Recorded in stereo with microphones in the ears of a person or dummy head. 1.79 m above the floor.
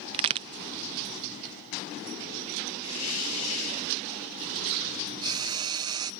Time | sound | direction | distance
0.1 | a crack | 30° right (ahead or behind) | ?
2.8 | a hiss | 80° left | ?
5.2 | frying | 25° right (ahead or behind) | ?